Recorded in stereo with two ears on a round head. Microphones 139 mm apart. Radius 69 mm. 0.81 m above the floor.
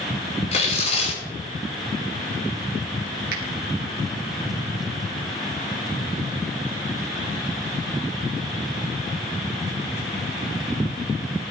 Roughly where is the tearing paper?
Left.